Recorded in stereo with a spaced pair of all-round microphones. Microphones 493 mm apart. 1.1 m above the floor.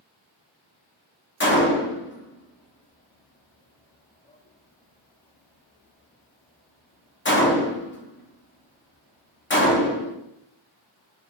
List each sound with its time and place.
1.4 s a gunshot: 25° left (ahead or behind), 0.5 m